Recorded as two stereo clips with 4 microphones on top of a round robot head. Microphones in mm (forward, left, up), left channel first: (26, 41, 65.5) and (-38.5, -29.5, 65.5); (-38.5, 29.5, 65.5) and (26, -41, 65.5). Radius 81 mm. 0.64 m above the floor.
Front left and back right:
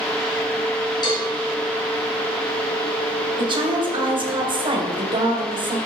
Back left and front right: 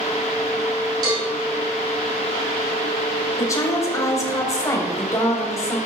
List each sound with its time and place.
1.0 s a cowbell: 5° left, 4.5 m
3.4 s a woman speaking: 170° right, 3.5 m